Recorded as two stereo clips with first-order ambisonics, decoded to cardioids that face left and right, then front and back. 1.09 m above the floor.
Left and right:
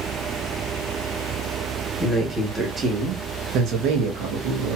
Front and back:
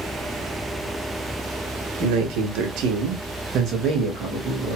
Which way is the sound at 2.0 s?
175° left.